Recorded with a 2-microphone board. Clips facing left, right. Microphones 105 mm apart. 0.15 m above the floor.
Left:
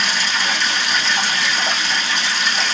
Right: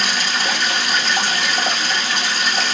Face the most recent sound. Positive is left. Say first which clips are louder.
# even
turn(degrees=-50)  # may be behind; listen again after turning